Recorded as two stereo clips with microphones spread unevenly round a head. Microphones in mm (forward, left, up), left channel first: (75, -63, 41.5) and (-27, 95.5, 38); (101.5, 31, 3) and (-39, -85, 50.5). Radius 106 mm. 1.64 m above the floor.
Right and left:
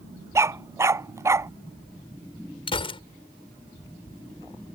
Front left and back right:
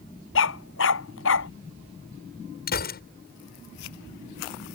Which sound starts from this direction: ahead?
A gunshot, at 2.7 s.